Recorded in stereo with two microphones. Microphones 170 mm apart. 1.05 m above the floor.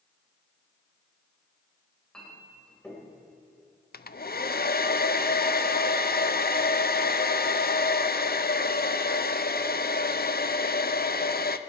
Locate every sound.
2.1 s a clink: 5° left (ahead or behind), 3.5 m
3.9 s a hair dryer: 65° left (ahead or behind), 0.5 m